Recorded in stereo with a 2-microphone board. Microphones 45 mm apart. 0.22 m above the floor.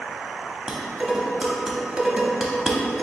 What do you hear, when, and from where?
0.7 s dishes clattering: 15° right (ahead or behind), 0.6 m